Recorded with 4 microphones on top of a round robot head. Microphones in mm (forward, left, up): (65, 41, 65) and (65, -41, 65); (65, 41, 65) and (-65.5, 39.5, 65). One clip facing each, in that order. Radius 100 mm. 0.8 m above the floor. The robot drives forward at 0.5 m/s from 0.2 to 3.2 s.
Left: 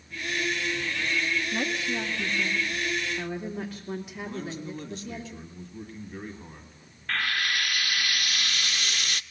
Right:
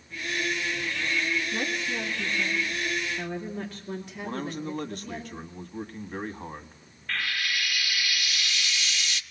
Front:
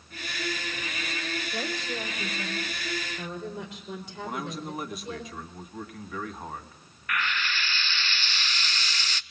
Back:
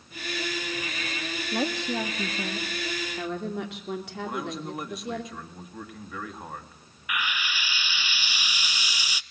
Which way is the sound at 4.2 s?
90° right.